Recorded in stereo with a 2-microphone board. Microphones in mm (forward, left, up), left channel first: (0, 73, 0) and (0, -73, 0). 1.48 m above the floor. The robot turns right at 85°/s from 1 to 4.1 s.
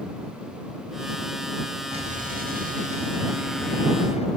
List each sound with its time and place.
1.9 s an explosion: 140° right; by 4.3 s 45° left